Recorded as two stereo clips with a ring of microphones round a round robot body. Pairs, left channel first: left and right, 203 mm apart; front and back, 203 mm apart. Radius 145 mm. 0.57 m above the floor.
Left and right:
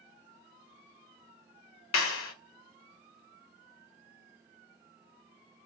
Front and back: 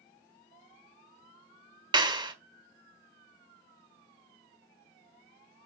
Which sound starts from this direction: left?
A clap, at 1.9 s.